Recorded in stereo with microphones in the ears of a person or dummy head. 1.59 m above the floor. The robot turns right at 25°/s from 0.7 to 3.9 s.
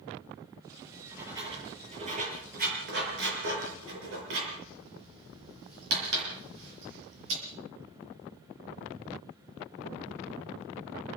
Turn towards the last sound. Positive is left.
turn(degrees=-80)